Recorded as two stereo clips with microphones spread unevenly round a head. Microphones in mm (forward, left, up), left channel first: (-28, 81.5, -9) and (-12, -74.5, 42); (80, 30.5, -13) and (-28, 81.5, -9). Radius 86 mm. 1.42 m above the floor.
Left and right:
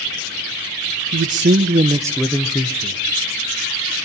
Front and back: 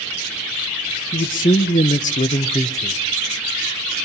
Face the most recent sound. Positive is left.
turn(degrees=45)